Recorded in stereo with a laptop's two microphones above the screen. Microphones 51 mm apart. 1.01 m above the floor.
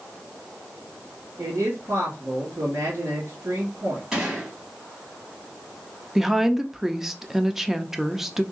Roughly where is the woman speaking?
Centre.